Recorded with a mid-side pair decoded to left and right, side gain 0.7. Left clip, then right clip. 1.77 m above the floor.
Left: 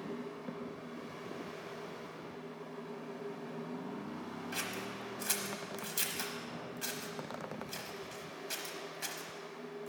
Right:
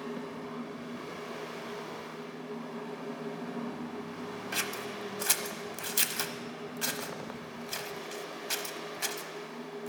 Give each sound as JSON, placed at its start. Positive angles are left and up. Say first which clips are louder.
{"t": 0.0, "sound": "a fan", "louder": "right 4 dB", "azimuth_deg": -35, "distance_m": 0.8}
{"t": 4.5, "sound": "scissors", "louder": "right 5 dB", "azimuth_deg": -35, "distance_m": 0.9}